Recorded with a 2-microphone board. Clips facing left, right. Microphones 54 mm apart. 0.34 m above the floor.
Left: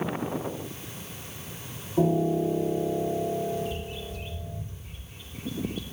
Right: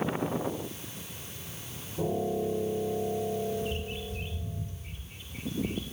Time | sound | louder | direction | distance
2.0 | a piano | left 6 dB | 85° left | 5 m
3.6 | a bird | left 1 dB | 40° right (ahead or behind) | 2.5 m